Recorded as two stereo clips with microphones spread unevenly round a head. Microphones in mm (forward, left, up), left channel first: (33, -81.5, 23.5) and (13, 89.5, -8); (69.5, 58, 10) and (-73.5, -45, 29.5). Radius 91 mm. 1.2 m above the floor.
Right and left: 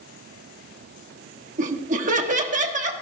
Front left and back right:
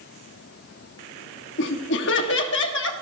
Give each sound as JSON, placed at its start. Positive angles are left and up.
{"t": 1.6, "sound": "laughter", "azimuth_deg": 55, "distance_m": 1.7}